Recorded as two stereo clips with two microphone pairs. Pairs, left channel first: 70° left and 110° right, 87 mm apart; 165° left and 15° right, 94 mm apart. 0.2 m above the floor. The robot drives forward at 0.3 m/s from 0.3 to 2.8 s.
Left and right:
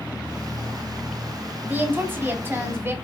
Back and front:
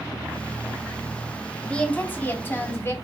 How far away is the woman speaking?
About 1.0 m.